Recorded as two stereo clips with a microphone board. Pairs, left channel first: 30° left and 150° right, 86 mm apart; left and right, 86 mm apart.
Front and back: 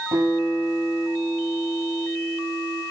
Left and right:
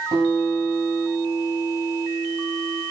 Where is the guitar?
110° right, 8.5 m.